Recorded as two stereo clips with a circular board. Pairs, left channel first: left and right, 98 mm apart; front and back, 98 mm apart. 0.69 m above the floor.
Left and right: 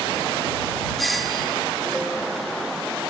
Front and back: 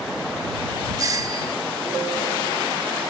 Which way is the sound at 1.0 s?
Straight behind.